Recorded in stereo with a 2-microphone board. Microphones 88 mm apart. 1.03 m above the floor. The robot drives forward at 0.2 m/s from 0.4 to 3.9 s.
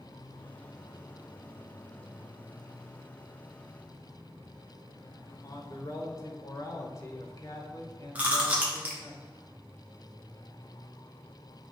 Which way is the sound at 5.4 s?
35° left (ahead or behind).